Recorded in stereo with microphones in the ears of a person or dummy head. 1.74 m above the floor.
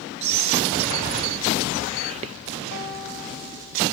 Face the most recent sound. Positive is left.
turn(degrees=50)  # may be behind; listen again after turning